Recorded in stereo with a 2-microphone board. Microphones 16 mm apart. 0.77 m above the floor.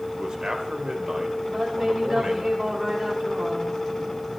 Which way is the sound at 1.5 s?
55° right (ahead or behind).